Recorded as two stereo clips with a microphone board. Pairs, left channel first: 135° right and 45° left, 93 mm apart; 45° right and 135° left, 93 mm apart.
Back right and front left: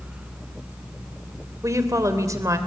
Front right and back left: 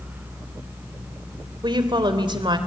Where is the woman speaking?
100° left, 3 m.